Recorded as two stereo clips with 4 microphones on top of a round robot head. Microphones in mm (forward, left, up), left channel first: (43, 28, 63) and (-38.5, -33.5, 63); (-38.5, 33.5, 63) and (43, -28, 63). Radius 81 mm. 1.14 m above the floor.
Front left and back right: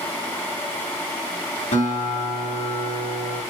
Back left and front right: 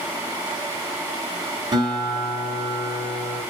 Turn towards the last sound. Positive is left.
turn(degrees=20)